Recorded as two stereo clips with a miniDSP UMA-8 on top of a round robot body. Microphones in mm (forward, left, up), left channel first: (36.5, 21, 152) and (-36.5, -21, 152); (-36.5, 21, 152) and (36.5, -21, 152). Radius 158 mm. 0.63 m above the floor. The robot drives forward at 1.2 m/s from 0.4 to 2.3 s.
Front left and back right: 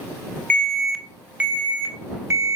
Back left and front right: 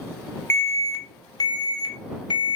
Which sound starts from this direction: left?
An alarm, at 0.5 s.